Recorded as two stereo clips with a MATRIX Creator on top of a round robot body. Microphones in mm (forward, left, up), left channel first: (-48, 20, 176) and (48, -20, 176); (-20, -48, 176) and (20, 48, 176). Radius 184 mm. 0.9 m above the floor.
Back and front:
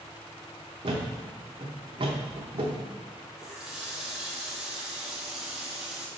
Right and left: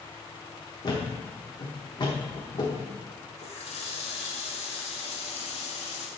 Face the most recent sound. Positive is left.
turn(degrees=-110)